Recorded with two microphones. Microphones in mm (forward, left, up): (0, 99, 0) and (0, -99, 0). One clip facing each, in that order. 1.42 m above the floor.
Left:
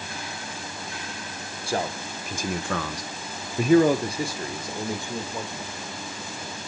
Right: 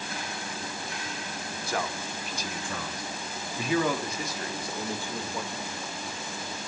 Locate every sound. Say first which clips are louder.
1.7 s a man speaking: left 5 dB; 30° left (ahead or behind), 1.1 m; by 5.7 s 15° left (ahead or behind), 2 m